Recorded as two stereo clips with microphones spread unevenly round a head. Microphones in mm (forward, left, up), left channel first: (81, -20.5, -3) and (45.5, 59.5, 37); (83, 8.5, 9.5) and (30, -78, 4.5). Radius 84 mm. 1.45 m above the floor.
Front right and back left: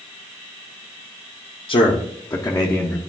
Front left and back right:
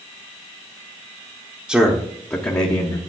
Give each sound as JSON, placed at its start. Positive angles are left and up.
{"t": 1.7, "sound": "a man speaking", "azimuth_deg": -40, "distance_m": 0.8}